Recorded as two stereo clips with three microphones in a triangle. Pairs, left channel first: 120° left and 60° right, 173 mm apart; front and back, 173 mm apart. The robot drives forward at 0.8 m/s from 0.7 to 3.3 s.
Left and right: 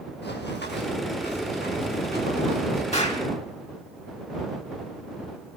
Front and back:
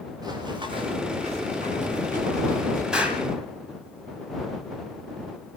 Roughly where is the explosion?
Left.